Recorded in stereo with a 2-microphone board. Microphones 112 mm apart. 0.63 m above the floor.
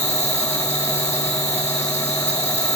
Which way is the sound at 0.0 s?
75° left (ahead or behind).